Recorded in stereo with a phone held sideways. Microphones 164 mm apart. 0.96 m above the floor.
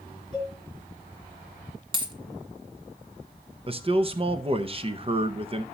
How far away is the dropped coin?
About 1.7 m.